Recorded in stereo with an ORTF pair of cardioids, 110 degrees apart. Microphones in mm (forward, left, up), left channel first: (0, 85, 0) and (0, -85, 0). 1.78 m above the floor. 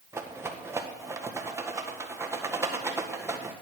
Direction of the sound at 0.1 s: 15° right.